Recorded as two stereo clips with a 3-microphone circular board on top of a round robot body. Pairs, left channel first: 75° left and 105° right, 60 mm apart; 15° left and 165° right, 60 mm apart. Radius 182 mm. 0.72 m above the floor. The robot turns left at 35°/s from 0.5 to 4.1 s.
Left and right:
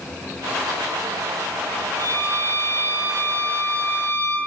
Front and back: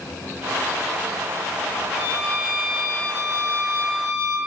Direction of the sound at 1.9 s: 130° right.